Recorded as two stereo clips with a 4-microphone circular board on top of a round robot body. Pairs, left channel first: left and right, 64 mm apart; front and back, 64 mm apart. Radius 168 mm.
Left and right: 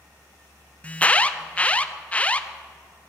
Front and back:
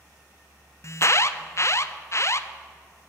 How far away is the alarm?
About 0.9 m.